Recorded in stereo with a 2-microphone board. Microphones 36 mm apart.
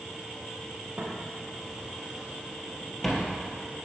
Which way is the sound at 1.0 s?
45° right (ahead or behind).